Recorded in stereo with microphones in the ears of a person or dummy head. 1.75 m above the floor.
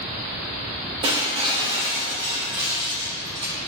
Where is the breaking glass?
30° right (ahead or behind), 1.8 m.